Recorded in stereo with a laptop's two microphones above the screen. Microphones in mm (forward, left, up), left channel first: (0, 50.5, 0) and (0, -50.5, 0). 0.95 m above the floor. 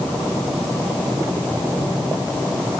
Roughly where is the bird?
I don't hear a bird.